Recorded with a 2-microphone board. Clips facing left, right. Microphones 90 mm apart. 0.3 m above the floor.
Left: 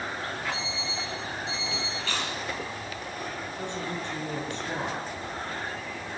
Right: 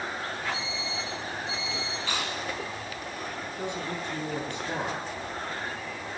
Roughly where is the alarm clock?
Left.